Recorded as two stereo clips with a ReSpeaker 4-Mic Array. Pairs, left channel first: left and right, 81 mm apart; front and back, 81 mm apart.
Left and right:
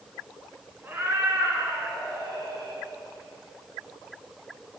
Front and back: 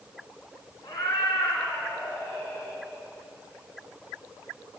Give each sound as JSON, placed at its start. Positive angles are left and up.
{"t": 0.8, "sound": "a cat meowing", "azimuth_deg": -30, "distance_m": 1.8}